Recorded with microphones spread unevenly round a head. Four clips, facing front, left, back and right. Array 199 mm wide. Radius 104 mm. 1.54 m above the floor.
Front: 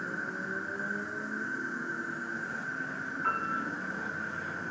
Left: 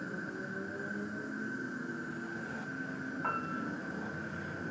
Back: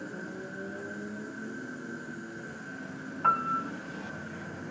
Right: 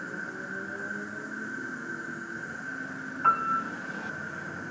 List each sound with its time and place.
0.0 s an insect: 30° right, 1.8 m
3.2 s a piano: 145° right, 3.5 m